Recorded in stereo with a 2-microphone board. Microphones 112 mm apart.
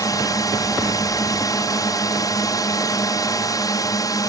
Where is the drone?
30° left (ahead or behind).